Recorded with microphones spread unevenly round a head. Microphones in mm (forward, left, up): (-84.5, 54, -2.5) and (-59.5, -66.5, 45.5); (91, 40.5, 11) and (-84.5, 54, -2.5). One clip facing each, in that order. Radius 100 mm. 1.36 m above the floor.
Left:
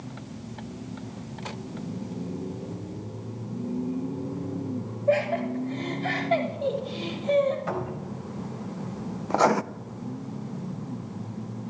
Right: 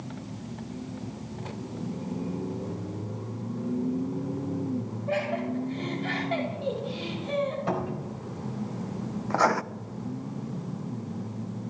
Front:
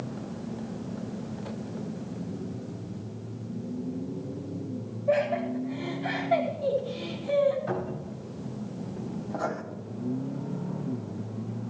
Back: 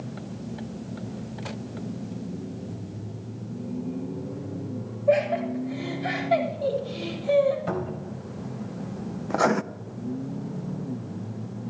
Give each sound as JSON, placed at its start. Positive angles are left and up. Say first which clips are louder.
{"t": 5.1, "sound": "laughter", "louder": "left 6 dB, back 3 dB", "azimuth_deg": 130, "distance_m": 8.5}
{"t": 7.7, "sound": "a cupboard door", "louder": "right 1 dB, back 2 dB", "azimuth_deg": -135, "distance_m": 4.5}
{"t": 9.3, "sound": "writing", "louder": "left 3 dB, back 10 dB", "azimuth_deg": 175, "distance_m": 0.6}